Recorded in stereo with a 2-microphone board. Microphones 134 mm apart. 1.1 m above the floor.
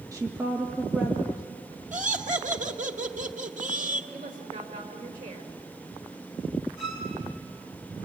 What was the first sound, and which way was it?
A woman speaking, 25° right (ahead or behind).